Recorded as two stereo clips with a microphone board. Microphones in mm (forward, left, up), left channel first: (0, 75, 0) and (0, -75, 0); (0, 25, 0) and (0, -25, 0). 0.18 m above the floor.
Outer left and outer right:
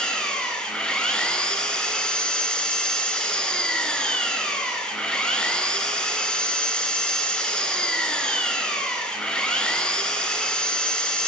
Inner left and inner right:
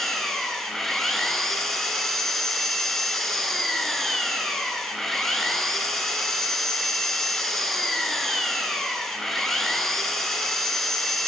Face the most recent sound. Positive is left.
turn(degrees=5)  # may be behind; listen again after turning